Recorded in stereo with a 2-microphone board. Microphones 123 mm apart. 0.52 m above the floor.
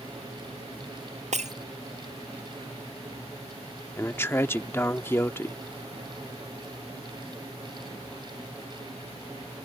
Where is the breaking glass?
75° right (ahead or behind).